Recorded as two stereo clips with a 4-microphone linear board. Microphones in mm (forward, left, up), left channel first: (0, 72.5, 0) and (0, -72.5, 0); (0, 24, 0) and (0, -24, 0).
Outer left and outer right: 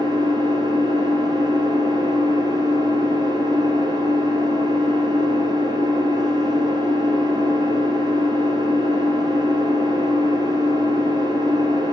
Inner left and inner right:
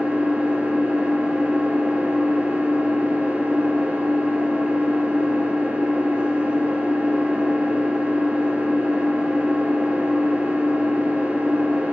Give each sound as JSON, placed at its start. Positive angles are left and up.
{"t": 0.0, "sound": "an engine running", "side_deg": -30, "distance_m": 2.0}